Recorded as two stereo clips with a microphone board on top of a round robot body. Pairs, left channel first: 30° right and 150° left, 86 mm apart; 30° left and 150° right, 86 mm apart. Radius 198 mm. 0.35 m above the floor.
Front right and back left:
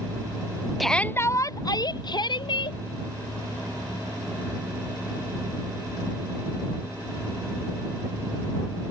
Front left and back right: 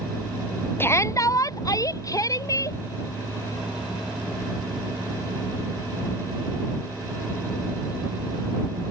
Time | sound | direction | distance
0.8 | a shout | 60° left | ?